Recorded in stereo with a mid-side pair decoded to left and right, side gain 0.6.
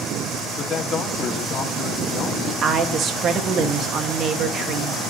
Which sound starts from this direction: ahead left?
A man speaking, at 0.6 s.